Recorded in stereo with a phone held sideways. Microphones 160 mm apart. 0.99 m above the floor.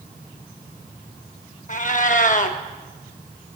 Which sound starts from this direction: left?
A cat meowing, at 1.7 s.